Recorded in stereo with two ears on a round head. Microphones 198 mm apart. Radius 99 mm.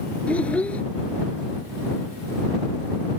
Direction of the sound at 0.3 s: 5° left (ahead or behind).